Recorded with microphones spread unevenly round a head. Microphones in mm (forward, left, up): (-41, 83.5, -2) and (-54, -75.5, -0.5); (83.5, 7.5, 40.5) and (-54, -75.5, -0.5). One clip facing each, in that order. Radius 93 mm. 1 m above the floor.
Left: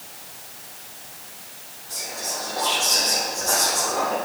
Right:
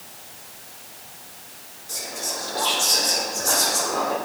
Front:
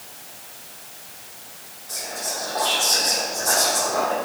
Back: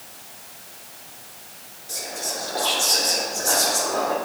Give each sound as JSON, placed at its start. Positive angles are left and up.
{"t": 1.9, "sound": "whispering", "azimuth_deg": -90, "distance_m": 3.0}